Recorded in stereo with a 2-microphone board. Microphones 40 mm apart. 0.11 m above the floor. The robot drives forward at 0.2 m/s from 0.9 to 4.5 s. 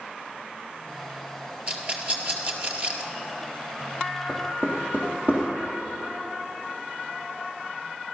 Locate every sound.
1.7 s a rattle: 40° right (ahead or behind), 2 m
4.3 s knocking: 30° right (ahead or behind), 3 m